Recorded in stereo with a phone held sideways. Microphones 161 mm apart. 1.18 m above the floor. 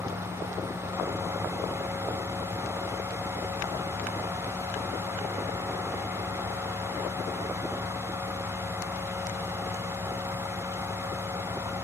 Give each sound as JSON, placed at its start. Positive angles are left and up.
{"t": 0.0, "sound": "a fan", "side_deg": -20, "distance_m": 2.5}